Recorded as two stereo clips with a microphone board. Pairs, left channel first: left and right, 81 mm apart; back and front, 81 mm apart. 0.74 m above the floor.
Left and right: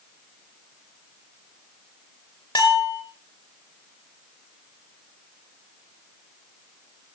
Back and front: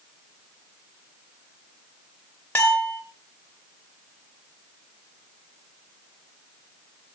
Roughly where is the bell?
Left.